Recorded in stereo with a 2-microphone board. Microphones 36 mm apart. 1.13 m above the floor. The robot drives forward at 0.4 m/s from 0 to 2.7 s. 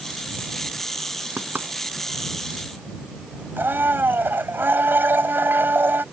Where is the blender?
75° right (ahead or behind).